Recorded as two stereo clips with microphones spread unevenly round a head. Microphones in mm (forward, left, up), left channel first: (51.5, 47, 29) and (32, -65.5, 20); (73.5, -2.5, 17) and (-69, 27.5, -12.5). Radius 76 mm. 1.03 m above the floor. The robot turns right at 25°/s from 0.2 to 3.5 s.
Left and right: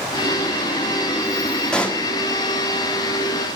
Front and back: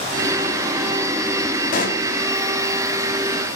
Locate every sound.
1.7 s a pop: straight ahead, 1.0 m; by 2.1 s 10° left, 1.0 m